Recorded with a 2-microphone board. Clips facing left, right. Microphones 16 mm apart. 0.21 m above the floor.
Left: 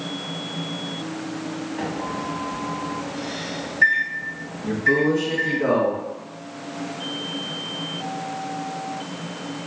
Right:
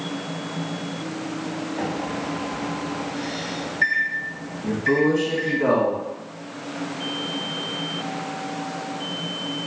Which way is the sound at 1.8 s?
5° right (ahead or behind).